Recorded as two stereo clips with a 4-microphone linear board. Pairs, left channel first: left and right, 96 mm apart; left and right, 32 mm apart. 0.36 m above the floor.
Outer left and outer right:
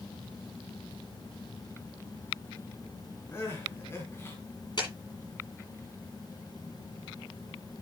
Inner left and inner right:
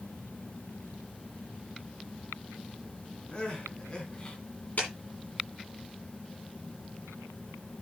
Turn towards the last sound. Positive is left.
turn(degrees=50)  # may be behind; listen again after turning